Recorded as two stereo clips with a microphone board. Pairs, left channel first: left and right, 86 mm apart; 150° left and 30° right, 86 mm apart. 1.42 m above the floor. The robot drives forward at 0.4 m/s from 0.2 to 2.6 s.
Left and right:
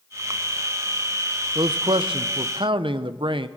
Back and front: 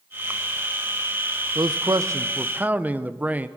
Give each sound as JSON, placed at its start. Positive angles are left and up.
{"t": 1.6, "sound": "a man speaking", "azimuth_deg": -65, "distance_m": 0.7}